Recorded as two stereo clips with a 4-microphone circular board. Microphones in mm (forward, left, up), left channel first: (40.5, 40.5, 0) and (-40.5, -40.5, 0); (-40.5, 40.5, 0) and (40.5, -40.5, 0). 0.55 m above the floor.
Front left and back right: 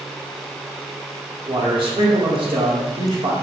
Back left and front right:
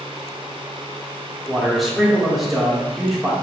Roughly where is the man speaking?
Behind right.